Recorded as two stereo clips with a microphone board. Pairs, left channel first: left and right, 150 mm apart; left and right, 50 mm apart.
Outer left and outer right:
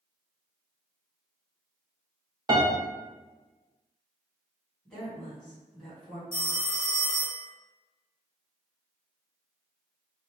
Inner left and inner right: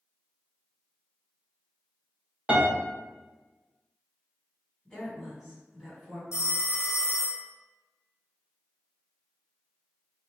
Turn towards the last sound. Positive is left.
turn(degrees=75)  # may be behind; listen again after turning